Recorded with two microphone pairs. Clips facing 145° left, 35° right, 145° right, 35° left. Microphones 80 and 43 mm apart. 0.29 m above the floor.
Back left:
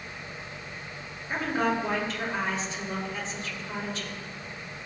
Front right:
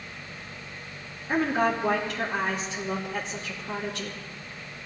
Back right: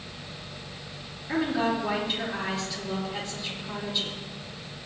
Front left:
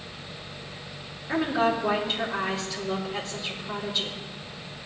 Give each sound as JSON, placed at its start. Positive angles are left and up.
{"t": 1.3, "sound": "a woman speaking", "azimuth_deg": -55, "distance_m": 5.0}